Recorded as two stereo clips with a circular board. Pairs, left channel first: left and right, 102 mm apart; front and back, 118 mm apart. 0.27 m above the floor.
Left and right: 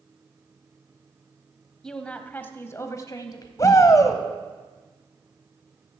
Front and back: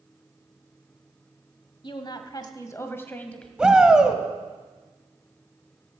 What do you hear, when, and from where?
1.8 s a woman speaking: 10° left, 1.2 m; by 3.5 s 75° left, 1.2 m
3.6 s a shout: 100° left, 1.3 m